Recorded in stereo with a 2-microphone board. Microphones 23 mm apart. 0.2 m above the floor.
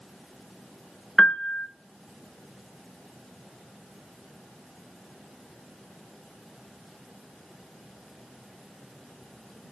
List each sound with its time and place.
1.2 s a piano: 50° left (ahead or behind), 0.7 m